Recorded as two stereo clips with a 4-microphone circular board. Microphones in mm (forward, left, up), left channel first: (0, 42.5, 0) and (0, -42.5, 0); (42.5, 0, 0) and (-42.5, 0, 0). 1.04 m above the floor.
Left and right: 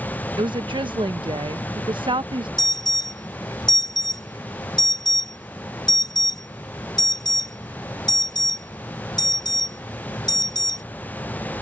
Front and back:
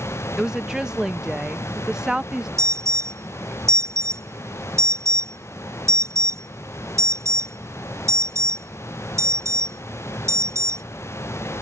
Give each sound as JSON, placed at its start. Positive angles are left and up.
{"t": 0.4, "sound": "a woman speaking", "azimuth_deg": -100}
{"t": 2.6, "sound": "an alarm", "azimuth_deg": 125}